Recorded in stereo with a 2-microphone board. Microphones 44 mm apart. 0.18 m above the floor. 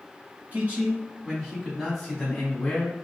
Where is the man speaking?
40° right (ahead or behind), 1.4 m; by 3.0 s 25° left (ahead or behind), 1.3 m.